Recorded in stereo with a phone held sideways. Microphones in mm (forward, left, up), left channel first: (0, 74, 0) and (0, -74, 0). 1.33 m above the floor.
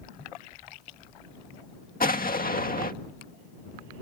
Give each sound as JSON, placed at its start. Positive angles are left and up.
{"t": 2.0, "sound": "an explosion", "side_deg": 75}